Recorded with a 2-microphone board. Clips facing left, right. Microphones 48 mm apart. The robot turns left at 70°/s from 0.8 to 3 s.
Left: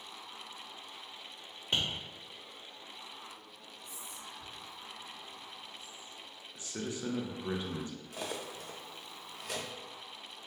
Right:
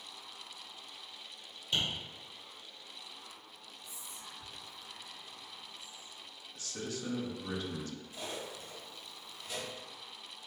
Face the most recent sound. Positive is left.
turn(degrees=75)  # may be behind; listen again after turning